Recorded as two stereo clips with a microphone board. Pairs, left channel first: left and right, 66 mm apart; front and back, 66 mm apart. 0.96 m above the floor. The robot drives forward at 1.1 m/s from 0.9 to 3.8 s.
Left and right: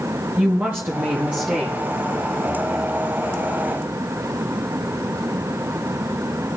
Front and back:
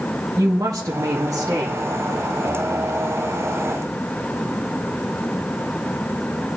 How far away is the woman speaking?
About 1.5 m.